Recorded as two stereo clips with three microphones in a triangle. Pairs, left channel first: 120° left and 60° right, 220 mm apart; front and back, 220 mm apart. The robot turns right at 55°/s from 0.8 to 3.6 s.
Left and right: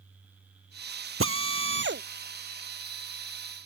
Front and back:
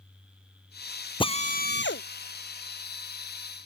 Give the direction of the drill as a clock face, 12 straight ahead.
2 o'clock.